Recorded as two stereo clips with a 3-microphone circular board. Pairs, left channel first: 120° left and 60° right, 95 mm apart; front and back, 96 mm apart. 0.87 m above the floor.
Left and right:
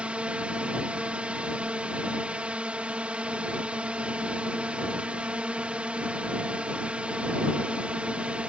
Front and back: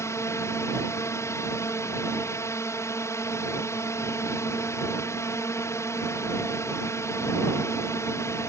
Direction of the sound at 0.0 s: 5° left.